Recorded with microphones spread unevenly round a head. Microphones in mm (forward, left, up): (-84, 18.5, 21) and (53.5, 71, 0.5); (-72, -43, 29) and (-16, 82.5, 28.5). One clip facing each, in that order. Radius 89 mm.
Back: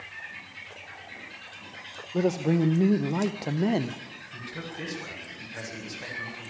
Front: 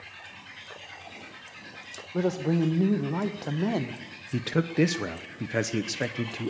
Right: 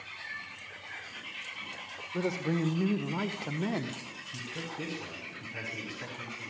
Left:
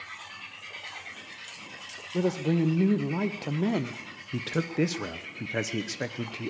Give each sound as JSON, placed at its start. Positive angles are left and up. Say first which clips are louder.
{"t": 2.1, "sound": "a man speaking", "louder": "back 1 dB, left 5 dB", "azimuth_deg": 130, "distance_m": 0.9}
{"t": 4.3, "sound": "a man speaking", "louder": "front 14 dB, left 12 dB", "azimuth_deg": 30, "distance_m": 1.1}